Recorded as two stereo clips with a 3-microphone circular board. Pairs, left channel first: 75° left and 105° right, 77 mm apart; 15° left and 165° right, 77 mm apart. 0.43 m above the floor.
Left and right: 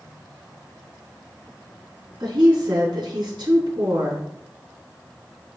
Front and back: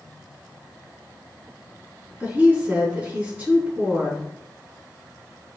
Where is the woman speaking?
95° right, 4 m.